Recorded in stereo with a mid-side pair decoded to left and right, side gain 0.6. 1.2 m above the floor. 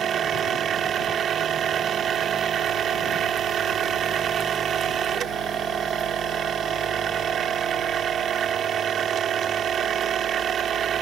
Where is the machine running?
45° right.